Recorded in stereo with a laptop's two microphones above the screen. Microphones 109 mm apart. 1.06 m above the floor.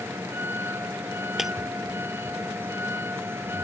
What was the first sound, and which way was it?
A vehicle, 20° right (ahead or behind).